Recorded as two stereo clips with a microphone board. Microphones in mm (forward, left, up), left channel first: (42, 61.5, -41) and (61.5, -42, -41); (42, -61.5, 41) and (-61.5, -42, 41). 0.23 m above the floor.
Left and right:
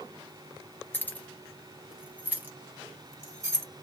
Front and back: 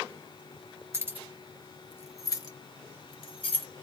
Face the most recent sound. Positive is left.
turn(degrees=-25)